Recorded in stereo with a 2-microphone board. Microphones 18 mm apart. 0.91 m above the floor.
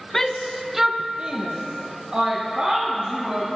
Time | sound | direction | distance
0.1 | a shout | 25° left (ahead or behind) | 0.6 m